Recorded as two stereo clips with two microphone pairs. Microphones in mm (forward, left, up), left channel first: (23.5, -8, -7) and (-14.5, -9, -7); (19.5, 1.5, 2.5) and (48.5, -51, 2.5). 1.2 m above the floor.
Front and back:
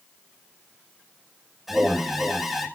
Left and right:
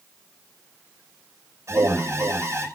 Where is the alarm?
95° right, 5.5 m.